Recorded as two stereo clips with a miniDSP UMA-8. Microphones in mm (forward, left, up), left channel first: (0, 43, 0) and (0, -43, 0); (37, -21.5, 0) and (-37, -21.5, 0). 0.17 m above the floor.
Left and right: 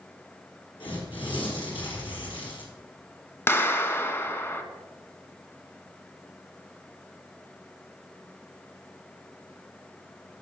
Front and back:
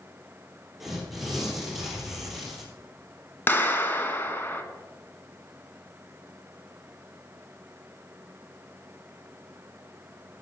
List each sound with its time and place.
0.8 s tearing paper: 95° left, 3 m
3.5 s a clap: 40° left, 1.0 m